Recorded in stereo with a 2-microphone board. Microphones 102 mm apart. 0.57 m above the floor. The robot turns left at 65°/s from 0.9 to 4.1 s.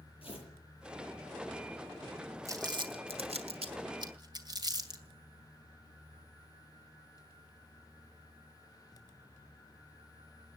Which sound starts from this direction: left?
Tearing paper, at 0.2 s.